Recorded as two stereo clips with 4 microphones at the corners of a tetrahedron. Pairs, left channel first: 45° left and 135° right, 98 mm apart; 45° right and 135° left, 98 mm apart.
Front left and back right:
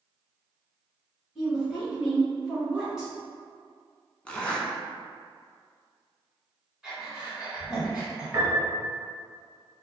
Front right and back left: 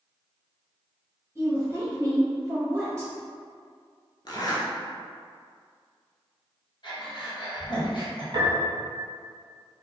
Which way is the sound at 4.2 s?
30° right.